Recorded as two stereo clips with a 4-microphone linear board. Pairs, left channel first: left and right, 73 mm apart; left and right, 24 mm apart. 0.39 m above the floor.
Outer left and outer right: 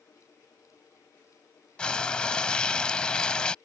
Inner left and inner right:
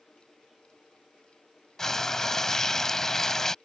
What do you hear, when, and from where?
1.8 s frying: 15° left (ahead or behind)